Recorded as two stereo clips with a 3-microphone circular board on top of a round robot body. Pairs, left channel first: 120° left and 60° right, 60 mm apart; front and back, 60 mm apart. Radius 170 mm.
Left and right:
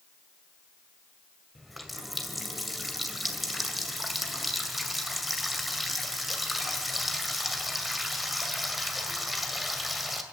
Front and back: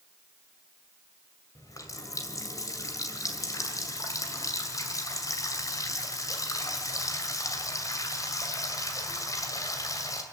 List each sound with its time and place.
1.6 s a running tap: 30° left, 2.5 m